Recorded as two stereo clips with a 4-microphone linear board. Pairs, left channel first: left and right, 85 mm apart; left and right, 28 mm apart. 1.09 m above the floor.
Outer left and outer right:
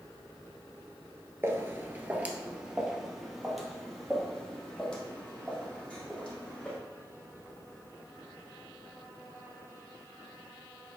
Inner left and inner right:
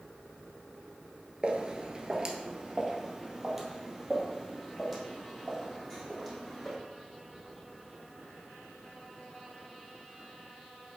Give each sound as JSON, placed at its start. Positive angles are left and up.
{"t": 1.4, "sound": "footsteps", "side_deg": -30, "distance_m": 1.3}